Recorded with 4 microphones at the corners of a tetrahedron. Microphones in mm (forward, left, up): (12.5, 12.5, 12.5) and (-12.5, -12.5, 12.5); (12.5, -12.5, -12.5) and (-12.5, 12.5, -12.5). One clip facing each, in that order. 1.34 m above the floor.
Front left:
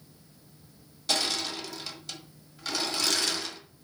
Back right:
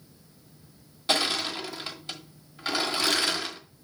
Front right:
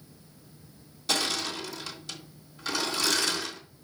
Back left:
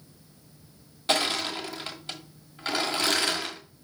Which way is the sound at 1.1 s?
170° left.